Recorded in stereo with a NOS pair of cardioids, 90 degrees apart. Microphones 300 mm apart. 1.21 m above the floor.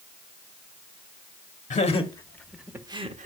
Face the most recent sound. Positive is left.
turn(degrees=-25)